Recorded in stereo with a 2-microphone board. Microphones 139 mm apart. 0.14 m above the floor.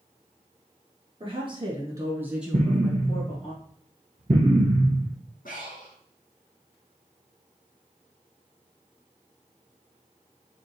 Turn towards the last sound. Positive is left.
turn(degrees=80)